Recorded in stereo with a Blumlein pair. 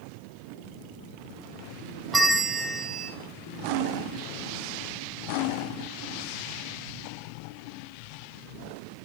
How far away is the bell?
About 0.9 m.